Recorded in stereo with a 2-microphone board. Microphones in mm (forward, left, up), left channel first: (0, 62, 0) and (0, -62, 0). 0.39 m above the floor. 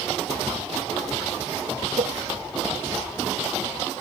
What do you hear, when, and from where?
2.0 s a cowbell: 80° right